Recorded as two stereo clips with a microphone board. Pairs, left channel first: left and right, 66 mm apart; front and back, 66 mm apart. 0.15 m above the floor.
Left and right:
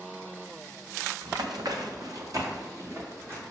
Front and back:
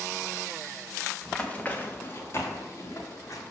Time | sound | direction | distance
1.2 | running footsteps | 80° right | 1.5 m